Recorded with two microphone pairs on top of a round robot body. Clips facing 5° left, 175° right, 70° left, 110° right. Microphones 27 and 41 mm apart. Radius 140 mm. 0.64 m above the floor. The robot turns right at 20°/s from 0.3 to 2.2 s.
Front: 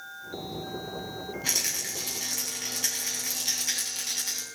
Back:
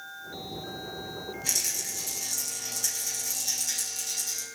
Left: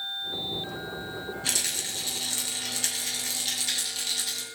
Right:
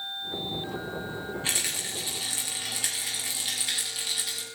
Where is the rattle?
50° right, 8.5 m; by 4.4 s 35° right, 8.5 m.